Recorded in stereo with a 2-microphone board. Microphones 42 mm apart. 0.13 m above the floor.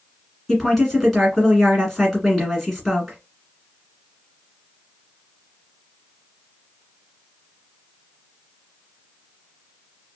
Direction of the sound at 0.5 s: 5° left (ahead or behind).